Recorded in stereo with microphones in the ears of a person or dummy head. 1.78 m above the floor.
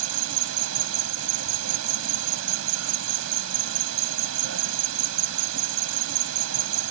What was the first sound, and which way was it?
An insect, 75° right (ahead or behind).